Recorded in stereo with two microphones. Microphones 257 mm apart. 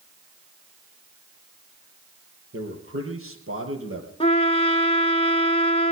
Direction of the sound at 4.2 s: 25° left (ahead or behind).